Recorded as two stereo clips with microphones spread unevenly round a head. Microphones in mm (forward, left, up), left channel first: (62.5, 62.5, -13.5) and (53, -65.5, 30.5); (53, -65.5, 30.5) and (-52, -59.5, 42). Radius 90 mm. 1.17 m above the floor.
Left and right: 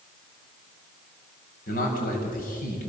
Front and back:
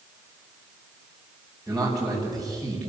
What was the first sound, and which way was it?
A man speaking, 85° left.